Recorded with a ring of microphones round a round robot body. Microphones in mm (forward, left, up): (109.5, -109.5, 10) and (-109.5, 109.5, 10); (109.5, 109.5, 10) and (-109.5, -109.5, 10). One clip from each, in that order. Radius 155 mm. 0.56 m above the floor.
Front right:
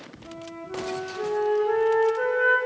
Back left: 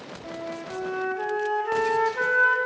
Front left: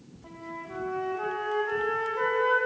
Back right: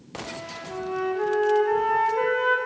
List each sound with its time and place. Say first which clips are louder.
0.2 s a flute: back left 4 dB, back right 2 dB; 150° left, 1.0 m